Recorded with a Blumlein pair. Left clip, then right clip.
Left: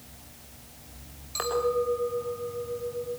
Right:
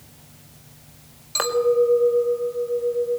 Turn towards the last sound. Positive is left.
turn(degrees=-25)